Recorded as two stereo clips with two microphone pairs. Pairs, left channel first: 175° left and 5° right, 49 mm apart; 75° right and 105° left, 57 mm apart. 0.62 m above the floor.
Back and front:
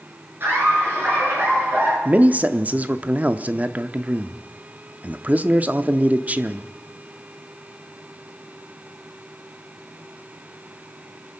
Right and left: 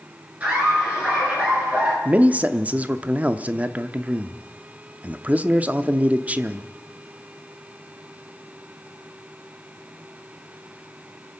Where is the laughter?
40° left, 10 m; by 1.9 s 45° left, 10 m.